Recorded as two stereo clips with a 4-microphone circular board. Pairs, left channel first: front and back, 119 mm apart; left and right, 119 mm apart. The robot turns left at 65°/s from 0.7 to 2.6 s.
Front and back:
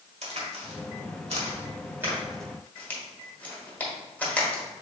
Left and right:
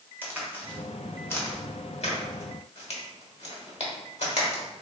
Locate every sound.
0.2 s a crack: 160° right, 1.4 m; by 4.6 s 75° left, 1.4 m